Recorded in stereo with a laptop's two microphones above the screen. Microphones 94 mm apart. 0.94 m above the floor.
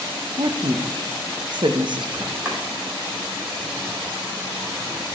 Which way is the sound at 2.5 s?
20° right (ahead or behind).